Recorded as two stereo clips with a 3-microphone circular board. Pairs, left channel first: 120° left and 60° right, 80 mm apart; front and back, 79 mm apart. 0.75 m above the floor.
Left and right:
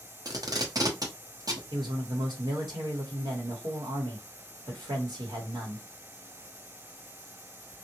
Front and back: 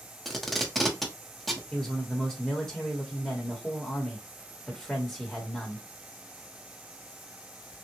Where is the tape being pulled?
90° right, 0.8 m.